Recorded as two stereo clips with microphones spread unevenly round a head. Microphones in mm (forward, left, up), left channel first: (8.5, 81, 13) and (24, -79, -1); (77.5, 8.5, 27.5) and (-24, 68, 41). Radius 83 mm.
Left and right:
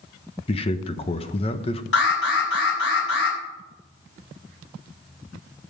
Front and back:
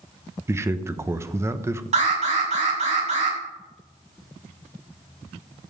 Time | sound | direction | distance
0.5 | a man speaking | 95° left | 1.0 m
1.9 | an alarm | 120° left | 8 m